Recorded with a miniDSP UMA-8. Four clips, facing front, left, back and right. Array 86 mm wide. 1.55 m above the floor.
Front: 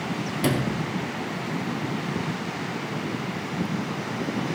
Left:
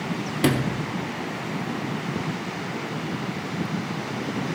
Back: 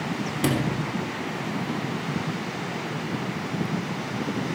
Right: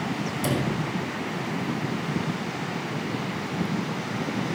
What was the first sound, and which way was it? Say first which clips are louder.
A sliding door: left 4 dB, even; 100° left.